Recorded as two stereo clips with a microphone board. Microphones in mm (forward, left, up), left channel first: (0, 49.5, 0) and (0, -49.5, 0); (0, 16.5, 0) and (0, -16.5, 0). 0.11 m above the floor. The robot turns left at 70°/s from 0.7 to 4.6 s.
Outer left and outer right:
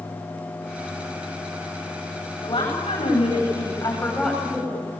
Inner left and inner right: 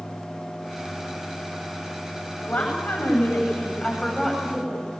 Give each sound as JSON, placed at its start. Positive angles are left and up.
{"t": 2.4, "sound": "a woman speaking", "azimuth_deg": 130, "distance_m": 9.0}